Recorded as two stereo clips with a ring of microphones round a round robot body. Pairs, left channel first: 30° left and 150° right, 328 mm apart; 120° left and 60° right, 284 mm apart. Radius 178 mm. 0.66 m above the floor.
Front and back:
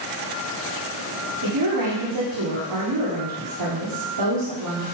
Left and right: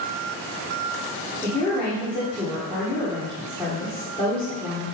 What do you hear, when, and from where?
1.4 s a woman speaking: 155° right, 1.9 m